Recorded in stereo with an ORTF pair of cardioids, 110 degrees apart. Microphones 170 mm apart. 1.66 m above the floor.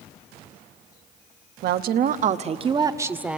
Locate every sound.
1.6 s a woman speaking: 65° right, 1.1 m; by 3.4 s 5° right, 1.0 m